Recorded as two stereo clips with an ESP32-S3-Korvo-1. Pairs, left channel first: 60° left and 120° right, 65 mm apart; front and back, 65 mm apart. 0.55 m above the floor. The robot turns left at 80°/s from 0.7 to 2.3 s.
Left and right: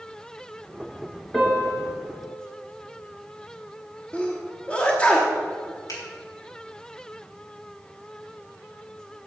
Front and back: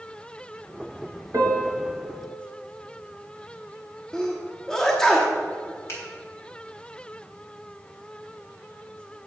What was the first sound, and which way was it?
A piano, 150° left.